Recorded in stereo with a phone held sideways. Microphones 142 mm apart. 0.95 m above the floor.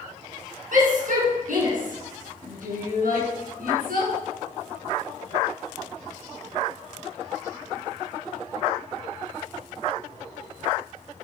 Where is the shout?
65° right (ahead or behind), 8.5 m; by 4.1 s 80° right, 9 m.